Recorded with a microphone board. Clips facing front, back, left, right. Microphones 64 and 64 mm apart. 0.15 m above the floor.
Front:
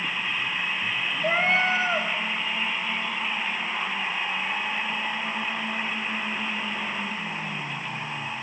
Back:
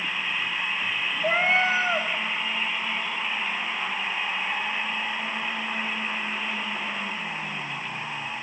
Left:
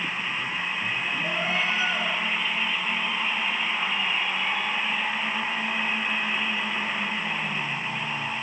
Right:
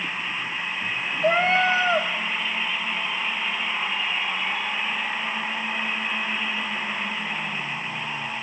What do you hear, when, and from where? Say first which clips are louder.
1.2 s a cat meowing: back 1 dB, right 10 dB; 95° right, 3 m